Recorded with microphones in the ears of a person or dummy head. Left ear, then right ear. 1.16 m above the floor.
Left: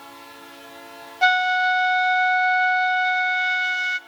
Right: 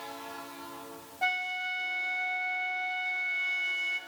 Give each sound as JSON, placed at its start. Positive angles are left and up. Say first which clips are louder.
{"t": 1.2, "sound": "a flute", "louder": "left 13 dB", "side_deg": 50, "distance_m": 0.6}